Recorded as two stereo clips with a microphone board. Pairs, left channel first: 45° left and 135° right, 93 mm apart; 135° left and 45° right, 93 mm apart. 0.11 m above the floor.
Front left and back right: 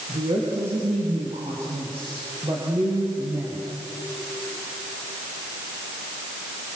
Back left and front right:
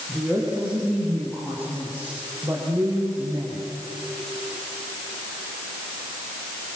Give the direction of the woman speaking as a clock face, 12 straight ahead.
4 o'clock.